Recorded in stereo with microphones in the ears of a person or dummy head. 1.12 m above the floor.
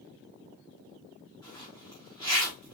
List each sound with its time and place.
1.4 s a zipper: 20° left (ahead or behind), 3.5 m